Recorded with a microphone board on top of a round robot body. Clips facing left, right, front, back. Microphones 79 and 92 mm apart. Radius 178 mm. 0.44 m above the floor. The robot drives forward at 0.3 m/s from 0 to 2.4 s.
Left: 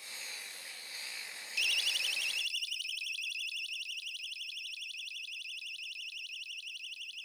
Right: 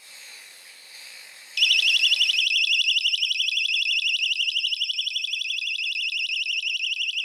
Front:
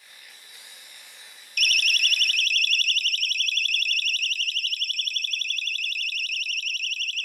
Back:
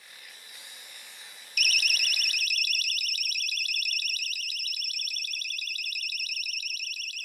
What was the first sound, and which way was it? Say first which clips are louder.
A siren: right 13 dB, front 4 dB; 95° right.